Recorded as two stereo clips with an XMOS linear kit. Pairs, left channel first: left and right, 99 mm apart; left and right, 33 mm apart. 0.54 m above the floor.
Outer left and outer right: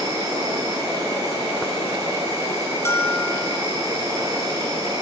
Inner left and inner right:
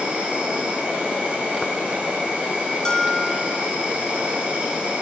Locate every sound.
0.0 s an insect: 35° right (ahead or behind), 5 m
2.9 s a bell: 25° left (ahead or behind), 0.8 m